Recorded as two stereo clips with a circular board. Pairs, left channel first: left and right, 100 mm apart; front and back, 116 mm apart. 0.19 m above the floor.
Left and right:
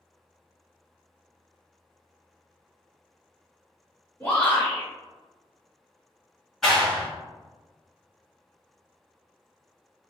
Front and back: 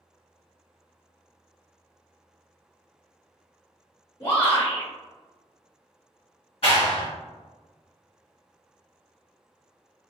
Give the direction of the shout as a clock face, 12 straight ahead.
11 o'clock.